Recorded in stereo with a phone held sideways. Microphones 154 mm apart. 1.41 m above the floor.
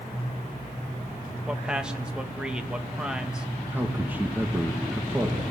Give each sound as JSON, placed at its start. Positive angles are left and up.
{"t": 1.5, "sound": "a man speaking", "side_deg": -5, "distance_m": 2.0}
{"t": 3.7, "sound": "a man speaking", "side_deg": -10, "distance_m": 2.0}